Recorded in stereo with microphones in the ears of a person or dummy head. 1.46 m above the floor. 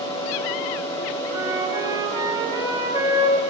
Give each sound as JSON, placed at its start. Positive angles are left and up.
{"t": 0.0, "sound": "a fan", "side_deg": 30, "distance_m": 4.0}
{"t": 1.3, "sound": "a flute", "side_deg": -25, "distance_m": 4.0}